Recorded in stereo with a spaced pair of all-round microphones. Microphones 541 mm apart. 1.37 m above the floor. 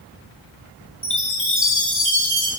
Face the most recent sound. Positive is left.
turn(degrees=25)  # may be behind; listen again after turning